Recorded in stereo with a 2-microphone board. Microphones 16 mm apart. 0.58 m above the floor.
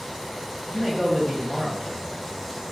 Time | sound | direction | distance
0.7 | a man speaking | 30° left (ahead or behind) | 1.7 m